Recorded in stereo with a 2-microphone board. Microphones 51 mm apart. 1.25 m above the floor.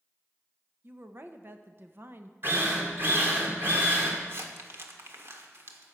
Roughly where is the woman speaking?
Right.